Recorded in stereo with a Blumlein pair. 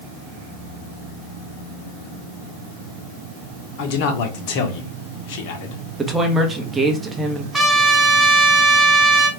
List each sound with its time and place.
3.8 s a man speaking: 45° left, 1.0 m
6.0 s a woman speaking: 15° right, 1.0 m
7.5 s a trumpet: 5° right, 1.9 m